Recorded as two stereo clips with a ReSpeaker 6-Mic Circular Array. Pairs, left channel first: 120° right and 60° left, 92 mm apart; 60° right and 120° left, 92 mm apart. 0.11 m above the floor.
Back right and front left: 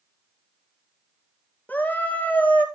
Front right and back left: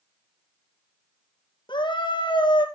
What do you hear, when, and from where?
1.7 s a scream: 50° right, 2.5 m